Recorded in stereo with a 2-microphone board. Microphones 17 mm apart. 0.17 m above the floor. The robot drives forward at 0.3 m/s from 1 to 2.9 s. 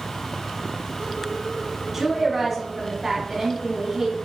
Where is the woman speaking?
20° right (ahead or behind), 1.2 m.